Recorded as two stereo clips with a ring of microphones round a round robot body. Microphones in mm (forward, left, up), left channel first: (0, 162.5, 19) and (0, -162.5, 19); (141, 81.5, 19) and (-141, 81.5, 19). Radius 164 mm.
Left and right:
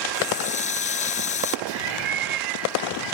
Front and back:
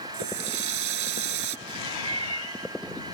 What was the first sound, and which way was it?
A running tap, 160° left.